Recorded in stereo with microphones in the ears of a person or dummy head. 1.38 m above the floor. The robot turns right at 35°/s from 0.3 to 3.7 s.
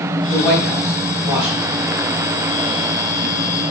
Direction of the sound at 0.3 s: 35° left (ahead or behind).